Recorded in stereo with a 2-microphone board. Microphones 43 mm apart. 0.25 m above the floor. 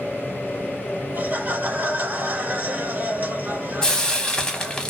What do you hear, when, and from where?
1.1 s laughter: 45° right (ahead or behind), 1.4 m
3.8 s frying: 20° left (ahead or behind), 0.6 m